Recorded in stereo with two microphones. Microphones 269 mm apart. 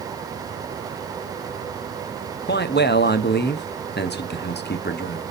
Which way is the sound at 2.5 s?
40° left (ahead or behind).